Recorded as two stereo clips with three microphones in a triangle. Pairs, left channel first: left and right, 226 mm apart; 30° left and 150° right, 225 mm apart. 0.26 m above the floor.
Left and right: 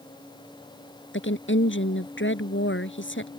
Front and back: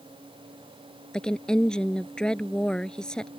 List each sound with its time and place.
1.1 s a woman speaking: 115° left